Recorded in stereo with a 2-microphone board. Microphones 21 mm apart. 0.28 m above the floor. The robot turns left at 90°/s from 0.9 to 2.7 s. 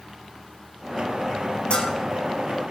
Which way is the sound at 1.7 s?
85° left.